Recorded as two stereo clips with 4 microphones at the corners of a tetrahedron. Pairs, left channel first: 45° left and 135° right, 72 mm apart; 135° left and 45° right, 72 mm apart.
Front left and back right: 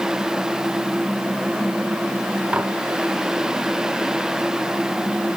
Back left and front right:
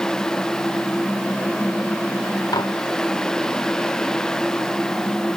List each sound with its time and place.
2.5 s dishes clattering: 155° left